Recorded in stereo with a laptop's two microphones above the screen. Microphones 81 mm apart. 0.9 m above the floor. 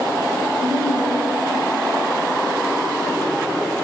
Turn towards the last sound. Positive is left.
turn(degrees=-35)  # may be behind; listen again after turning